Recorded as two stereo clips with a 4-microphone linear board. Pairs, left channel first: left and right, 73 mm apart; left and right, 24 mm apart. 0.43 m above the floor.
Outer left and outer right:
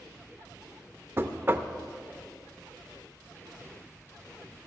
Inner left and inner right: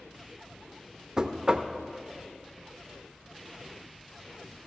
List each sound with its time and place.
1.2 s knocking: 30° right (ahead or behind), 0.5 m